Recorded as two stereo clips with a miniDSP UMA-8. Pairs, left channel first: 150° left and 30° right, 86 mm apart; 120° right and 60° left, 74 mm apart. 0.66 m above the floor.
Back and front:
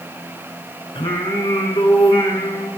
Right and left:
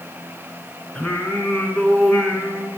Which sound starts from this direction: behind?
Singing, at 0.9 s.